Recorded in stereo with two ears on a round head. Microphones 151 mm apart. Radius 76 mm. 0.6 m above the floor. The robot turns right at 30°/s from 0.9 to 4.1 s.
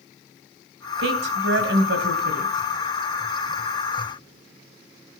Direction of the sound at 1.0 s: 100° right.